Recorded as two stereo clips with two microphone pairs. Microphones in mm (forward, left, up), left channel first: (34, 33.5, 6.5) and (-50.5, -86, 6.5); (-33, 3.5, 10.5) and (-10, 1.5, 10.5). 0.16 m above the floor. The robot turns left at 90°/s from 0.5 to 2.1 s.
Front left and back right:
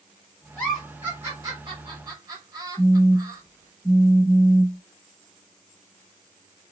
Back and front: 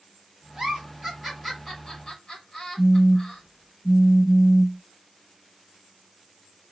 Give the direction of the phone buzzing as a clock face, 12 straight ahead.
9 o'clock.